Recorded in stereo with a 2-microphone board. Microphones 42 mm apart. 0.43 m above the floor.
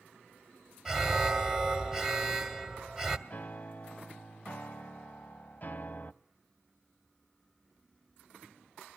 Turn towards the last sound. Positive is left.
turn(degrees=40)  # may be behind; listen again after turning